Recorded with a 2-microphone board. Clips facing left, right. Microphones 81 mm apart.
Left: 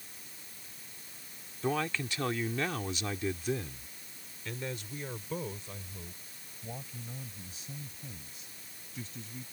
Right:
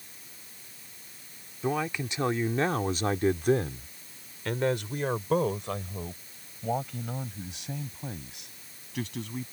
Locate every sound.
1.6 s a man speaking: 10° right (ahead or behind); by 9.4 s 75° right (ahead or behind)